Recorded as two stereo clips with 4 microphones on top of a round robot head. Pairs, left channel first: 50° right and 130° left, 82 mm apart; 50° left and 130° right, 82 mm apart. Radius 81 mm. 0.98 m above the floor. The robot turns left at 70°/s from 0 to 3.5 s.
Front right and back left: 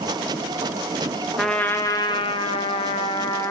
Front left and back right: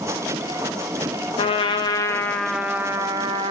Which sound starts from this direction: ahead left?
A trumpet, at 1.4 s.